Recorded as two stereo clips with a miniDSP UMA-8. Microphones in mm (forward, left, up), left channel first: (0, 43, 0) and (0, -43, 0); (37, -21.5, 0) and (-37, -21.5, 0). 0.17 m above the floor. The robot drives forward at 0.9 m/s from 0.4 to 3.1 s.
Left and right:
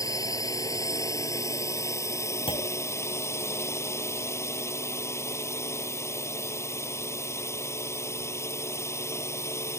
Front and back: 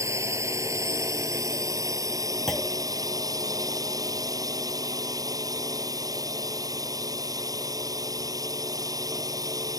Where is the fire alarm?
No fire alarm in this recording.